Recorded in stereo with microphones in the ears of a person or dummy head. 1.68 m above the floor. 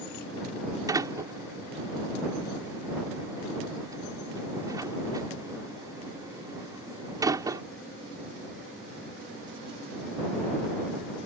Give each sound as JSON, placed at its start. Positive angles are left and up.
{"t": 0.9, "sound": "a door slam", "side_deg": -15}